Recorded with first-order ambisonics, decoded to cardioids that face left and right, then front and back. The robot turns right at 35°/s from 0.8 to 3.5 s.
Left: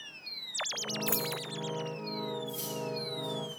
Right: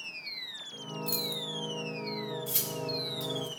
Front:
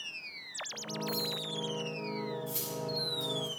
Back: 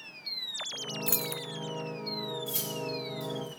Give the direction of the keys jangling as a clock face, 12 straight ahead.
6 o'clock.